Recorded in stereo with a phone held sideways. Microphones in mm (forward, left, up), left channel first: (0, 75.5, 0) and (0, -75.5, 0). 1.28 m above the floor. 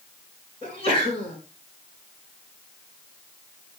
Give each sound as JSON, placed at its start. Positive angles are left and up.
{"t": 0.6, "sound": "a sneeze", "side_deg": 40, "distance_m": 7.0}